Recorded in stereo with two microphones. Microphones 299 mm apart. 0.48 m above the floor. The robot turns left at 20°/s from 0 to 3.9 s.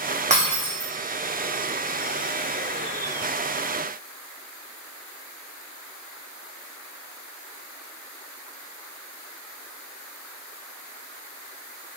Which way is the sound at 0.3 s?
25° right (ahead or behind).